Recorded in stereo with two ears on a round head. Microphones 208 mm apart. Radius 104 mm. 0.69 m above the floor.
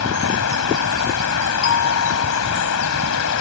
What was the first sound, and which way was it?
Running water, 75° left (ahead or behind).